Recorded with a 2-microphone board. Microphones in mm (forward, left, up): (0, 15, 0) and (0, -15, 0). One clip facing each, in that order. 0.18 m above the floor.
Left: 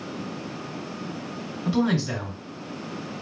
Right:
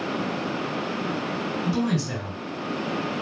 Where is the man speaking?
30° left (ahead or behind), 2 m.